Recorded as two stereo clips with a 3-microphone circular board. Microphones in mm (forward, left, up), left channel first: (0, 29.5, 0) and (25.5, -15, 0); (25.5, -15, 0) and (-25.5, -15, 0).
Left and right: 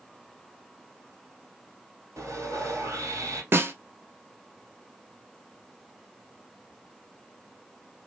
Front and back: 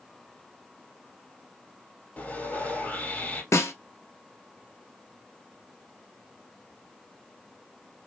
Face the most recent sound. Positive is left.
turn(degrees=-20)